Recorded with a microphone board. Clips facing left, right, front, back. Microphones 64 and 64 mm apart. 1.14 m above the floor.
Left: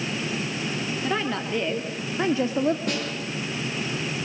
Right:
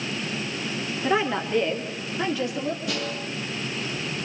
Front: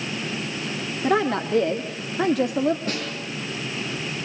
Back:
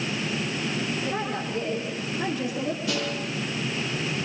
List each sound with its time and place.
1.0 s a woman speaking: 10° right, 2.5 m; by 2.8 s 40° left, 2 m
2.9 s a snare drum: 50° left, 9.5 m